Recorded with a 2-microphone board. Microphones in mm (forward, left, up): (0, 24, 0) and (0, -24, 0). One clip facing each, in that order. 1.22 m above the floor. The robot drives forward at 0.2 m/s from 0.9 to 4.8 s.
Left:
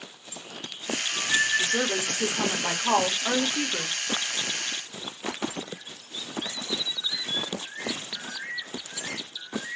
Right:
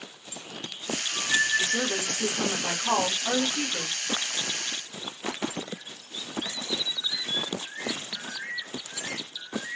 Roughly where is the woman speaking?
Left.